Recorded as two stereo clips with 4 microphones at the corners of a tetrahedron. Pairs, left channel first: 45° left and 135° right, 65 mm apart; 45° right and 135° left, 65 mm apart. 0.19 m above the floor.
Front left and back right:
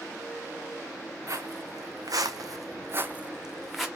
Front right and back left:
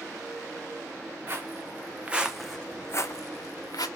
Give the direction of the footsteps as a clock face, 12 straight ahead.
6 o'clock.